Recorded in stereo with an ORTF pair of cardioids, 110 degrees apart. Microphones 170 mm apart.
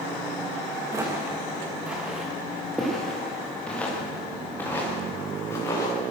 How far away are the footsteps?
About 6.5 m.